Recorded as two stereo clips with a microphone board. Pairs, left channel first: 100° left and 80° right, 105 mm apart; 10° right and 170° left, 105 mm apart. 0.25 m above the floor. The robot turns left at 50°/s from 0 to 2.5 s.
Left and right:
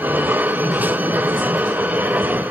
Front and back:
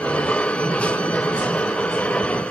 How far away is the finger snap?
No finger snap in this recording.